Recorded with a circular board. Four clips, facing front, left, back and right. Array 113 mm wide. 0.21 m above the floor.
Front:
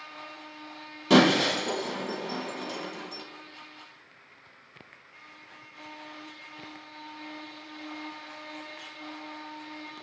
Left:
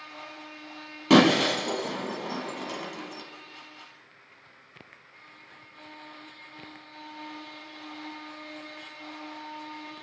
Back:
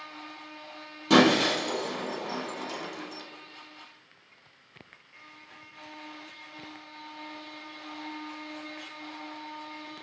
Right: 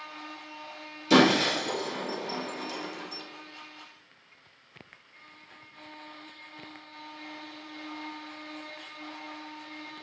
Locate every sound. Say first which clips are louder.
1.1 s breaking glass: left 2 dB, even; 85° left, 1.4 m